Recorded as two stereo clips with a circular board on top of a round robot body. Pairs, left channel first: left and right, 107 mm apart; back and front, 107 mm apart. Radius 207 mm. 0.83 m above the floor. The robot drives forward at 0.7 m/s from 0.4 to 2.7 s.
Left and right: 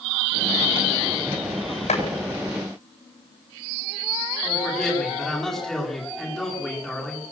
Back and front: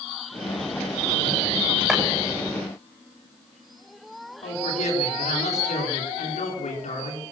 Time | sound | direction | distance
1.9 | chopping | 85° left | 7.5 m
4.4 | a man speaking | straight behind | 9.5 m